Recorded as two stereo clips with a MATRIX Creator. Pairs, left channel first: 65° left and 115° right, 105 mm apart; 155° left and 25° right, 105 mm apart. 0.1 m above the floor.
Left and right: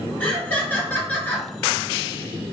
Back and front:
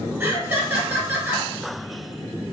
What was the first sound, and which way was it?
Laughter, 20° left.